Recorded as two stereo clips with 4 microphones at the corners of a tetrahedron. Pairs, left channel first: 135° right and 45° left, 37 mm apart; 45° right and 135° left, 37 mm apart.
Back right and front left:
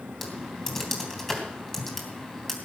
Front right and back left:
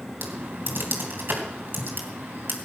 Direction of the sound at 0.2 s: 150° left.